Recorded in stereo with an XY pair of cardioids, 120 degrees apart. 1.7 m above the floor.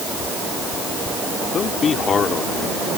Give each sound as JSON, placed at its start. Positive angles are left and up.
{"t": 1.5, "sound": "a man speaking", "azimuth_deg": 40}